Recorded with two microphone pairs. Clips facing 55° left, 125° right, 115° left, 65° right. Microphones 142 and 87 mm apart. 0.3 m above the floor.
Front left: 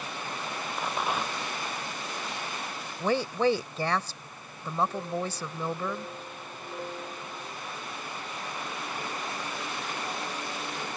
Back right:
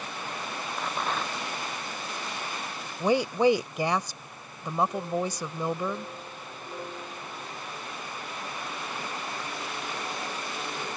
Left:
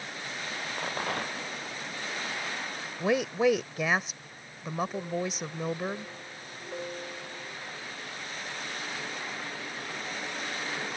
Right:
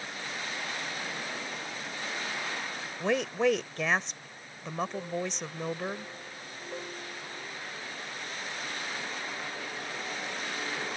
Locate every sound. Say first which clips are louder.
0.8 s a rattle: front left 1 dB, left 5 dB; 135° left
3.0 s a woman speaking: back right 3 dB, left 2 dB; 175° right